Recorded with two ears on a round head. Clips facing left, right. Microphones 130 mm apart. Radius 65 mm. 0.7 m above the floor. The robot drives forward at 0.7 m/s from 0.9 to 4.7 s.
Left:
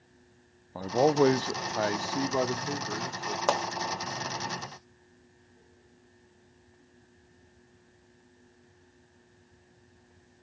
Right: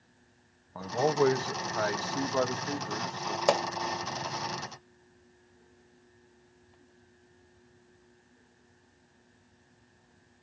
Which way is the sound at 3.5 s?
15° right (ahead or behind).